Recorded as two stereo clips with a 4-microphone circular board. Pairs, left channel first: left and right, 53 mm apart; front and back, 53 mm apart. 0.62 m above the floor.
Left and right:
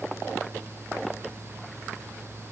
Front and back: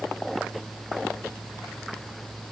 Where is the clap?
I don't hear a clap.